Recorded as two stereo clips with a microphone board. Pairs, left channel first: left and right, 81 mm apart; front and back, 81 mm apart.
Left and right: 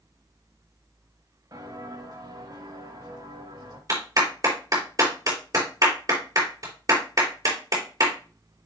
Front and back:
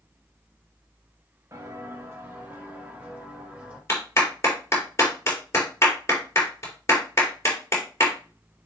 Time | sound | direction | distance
1.5 | footsteps | 125° right | 3 m
3.9 | a clap | 55° right | 3 m